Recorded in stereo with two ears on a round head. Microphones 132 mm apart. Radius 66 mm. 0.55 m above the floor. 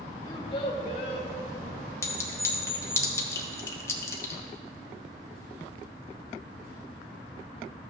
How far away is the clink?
About 1.1 m.